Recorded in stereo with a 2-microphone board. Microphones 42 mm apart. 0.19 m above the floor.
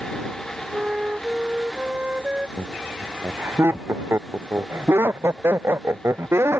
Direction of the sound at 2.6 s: 65° right (ahead or behind).